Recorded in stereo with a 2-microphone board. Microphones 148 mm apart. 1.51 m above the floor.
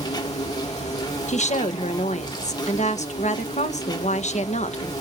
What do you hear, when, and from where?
0.0 s an insect: 30° left (ahead or behind), 1.8 m
1.3 s a woman speaking: 55° left (ahead or behind), 1.1 m